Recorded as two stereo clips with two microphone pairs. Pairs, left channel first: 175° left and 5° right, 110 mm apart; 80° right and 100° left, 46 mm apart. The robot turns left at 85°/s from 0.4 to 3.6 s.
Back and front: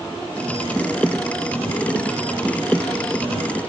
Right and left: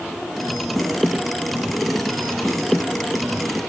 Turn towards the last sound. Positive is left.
No sound to turn to.